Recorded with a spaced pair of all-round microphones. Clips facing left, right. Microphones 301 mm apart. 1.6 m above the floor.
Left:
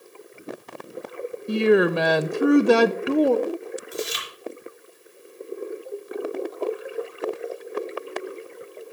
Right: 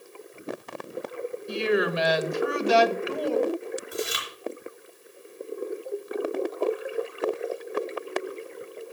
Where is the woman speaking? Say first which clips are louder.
Left 7 dB; 60° left (ahead or behind), 0.8 m.